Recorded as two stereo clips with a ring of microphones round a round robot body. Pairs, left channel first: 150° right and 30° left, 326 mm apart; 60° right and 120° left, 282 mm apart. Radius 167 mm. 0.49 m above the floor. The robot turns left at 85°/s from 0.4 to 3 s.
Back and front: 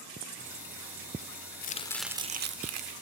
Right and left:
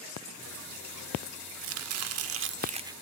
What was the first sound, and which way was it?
Chopping, 155° left.